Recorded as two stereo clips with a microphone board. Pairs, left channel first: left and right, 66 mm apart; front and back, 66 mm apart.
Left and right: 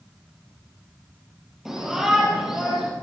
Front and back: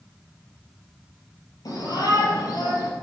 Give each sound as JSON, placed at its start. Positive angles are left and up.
{"t": 1.6, "sound": "a shout", "azimuth_deg": -5, "distance_m": 5.5}